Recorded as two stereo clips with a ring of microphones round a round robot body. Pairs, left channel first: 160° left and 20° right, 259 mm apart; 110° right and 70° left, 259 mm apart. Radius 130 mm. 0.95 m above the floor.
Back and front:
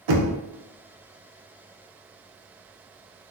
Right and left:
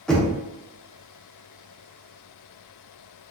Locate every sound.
0.1 s knocking: 25° right, 0.7 m